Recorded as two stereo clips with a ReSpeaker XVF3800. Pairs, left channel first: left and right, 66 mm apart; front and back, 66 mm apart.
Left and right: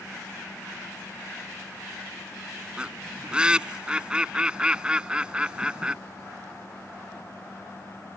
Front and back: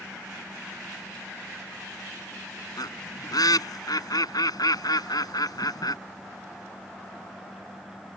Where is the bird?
15° right.